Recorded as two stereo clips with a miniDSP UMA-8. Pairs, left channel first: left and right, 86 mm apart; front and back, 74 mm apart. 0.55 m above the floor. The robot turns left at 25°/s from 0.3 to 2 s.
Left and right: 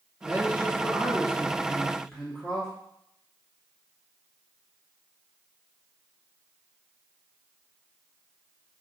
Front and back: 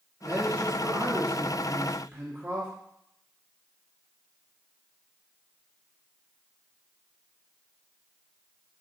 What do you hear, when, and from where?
0.2 s a man speaking: 150° right, 1.0 m; by 2.7 s 170° left, 1.0 m